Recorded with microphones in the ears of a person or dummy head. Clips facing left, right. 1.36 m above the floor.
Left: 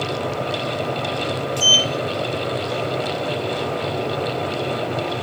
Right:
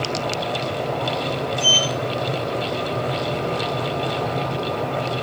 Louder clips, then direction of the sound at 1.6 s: Left 1 dB; 75° left (ahead or behind).